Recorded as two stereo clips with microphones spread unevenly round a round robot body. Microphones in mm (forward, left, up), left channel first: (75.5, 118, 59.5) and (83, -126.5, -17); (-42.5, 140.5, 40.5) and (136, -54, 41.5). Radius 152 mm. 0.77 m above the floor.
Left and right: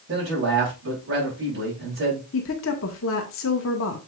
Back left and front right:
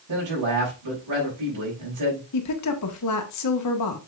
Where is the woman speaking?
145° left, 1.3 m.